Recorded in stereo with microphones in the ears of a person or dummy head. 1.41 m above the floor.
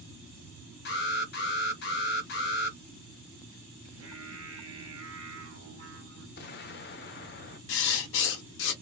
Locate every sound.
0.8 s an alarm: 55° left (ahead or behind), 1.1 m
3.8 s singing: 80° right, 1.6 m
6.4 s an explosion: 45° left (ahead or behind), 0.6 m
7.7 s writing: 70° left (ahead or behind), 0.9 m